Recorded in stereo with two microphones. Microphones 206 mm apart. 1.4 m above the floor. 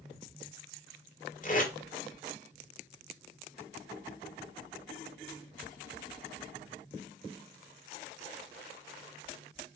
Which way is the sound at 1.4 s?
40° left (ahead or behind).